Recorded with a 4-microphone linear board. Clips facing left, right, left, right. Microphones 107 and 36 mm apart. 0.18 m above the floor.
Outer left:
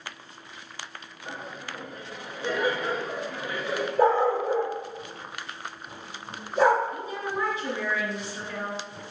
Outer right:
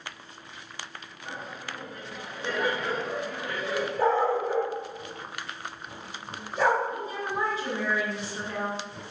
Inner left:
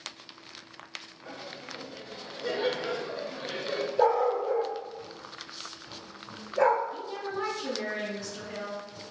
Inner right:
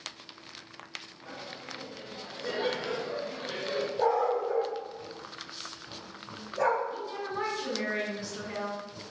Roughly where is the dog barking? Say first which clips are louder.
Outer left 3 dB, inner left 3 dB; left.